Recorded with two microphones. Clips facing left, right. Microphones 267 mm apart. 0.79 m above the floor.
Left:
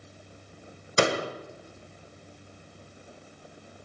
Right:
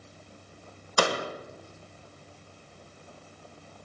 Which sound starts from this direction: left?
A door slam, at 1.0 s.